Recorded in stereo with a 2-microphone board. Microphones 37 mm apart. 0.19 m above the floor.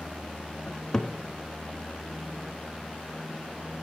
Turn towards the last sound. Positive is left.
turn(degrees=15)  # may be behind; listen again after turning